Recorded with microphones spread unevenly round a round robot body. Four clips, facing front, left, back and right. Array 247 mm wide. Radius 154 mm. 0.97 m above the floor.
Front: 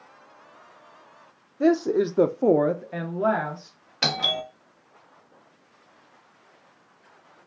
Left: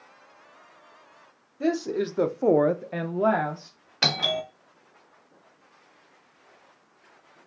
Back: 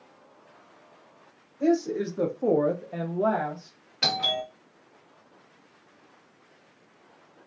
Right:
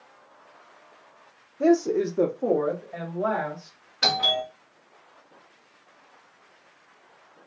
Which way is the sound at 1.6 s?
40° right.